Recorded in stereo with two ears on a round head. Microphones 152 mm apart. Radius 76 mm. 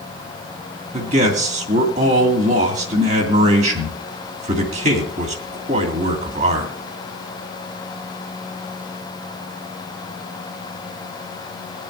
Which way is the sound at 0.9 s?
40° right (ahead or behind).